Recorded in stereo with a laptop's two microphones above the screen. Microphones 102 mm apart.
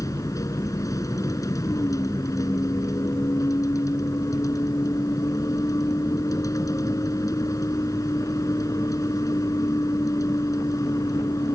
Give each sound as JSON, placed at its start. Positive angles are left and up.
{"t": 0.0, "sound": "a vehicle", "side_deg": 30}